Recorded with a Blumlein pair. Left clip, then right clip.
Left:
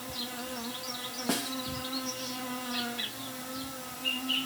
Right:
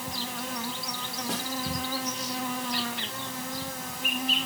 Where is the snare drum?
65° left, 1.2 m.